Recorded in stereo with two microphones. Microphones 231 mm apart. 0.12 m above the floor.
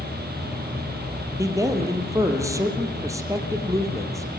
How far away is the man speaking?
About 3.5 m.